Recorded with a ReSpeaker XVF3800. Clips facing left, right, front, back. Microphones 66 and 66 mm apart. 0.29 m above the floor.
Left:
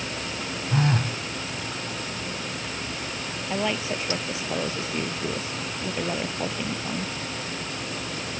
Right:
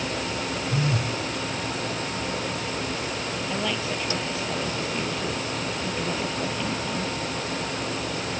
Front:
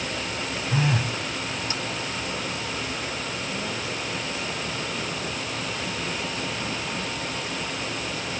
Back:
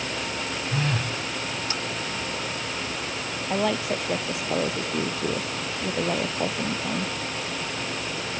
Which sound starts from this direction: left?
A phone buzzing, at 0.7 s.